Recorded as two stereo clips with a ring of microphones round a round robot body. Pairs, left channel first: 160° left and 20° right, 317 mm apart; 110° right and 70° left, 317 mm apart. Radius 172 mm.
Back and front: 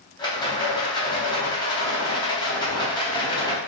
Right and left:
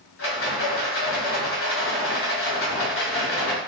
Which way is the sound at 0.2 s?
130° right.